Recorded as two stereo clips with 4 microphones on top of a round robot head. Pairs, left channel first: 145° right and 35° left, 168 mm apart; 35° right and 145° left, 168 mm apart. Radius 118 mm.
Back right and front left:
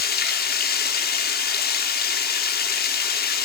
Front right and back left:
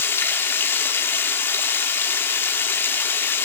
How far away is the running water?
About 2.5 m.